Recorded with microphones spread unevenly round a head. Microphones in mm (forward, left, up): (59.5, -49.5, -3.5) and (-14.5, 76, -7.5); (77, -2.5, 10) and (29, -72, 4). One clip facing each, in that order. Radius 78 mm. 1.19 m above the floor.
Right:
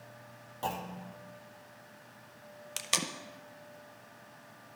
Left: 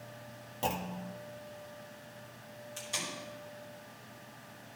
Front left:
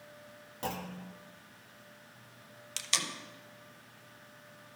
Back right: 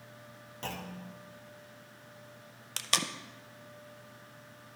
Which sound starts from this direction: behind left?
A clunk, at 0.6 s.